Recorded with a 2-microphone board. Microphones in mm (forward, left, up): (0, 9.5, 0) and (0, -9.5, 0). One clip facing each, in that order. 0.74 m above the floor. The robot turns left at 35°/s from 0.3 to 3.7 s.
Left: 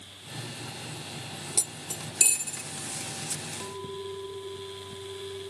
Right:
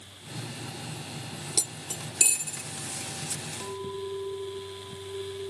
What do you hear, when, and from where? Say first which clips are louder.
1.6 s cutlery clinking: right 2 dB; 30° right (ahead or behind); by 2.6 s 5° left (ahead or behind)
3.6 s a clink: right 2 dB; 20° right (ahead or behind); by 5.5 s 15° right (ahead or behind)